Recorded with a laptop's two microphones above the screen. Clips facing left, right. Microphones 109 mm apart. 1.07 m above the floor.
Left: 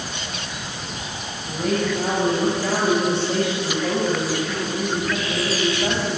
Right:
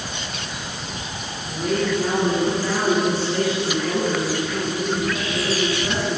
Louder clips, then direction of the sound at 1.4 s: Even; 85° left.